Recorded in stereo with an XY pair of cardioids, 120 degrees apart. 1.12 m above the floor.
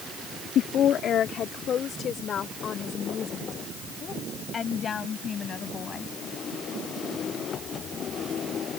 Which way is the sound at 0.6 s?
65° left.